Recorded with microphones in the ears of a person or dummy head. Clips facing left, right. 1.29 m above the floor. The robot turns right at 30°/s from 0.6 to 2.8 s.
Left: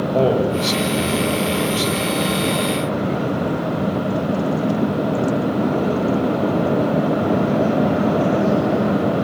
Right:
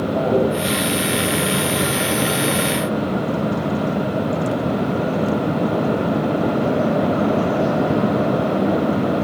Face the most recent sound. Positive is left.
turn(degrees=120)